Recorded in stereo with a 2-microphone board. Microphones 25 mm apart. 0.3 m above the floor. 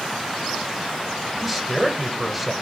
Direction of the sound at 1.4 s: 10° right (ahead or behind).